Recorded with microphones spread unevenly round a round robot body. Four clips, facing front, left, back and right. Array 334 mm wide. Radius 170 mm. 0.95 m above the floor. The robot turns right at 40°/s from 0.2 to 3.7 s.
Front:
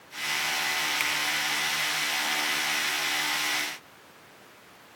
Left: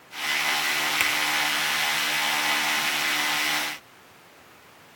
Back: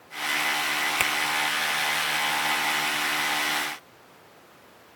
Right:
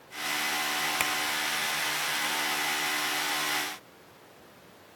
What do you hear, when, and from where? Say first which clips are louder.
1.0 s a finger snap: left 3 dB, back 4 dB; 175° left, 1.3 m